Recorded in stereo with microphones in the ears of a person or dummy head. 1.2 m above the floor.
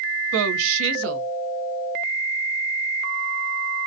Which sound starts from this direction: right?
A woman speaking, at 0.3 s.